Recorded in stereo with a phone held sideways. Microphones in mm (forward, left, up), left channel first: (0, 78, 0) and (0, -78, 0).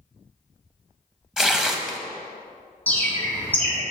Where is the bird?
10° left (ahead or behind), 1.7 m.